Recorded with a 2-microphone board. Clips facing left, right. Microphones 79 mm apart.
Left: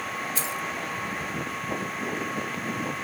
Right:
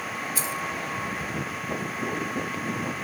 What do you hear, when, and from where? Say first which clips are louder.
0.3 s keys jangling: right 1 dB; 5° right (ahead or behind), 1.6 m